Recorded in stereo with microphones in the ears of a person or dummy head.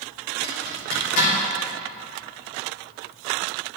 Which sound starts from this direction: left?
A zipper, at 0.4 s.